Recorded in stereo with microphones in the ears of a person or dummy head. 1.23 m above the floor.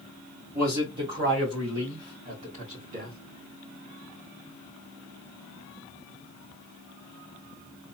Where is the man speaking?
15° right (ahead or behind), 1.4 m; by 3.2 s 45° right (ahead or behind), 2.5 m.